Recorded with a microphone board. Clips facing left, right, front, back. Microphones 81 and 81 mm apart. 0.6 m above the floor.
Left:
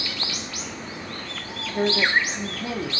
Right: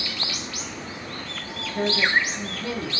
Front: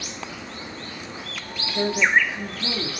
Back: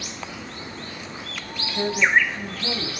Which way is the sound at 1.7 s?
45° left.